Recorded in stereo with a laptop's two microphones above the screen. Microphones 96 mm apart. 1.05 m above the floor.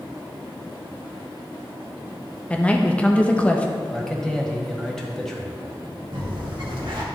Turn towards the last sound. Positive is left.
turn(degrees=-60)  # may be behind; listen again after turning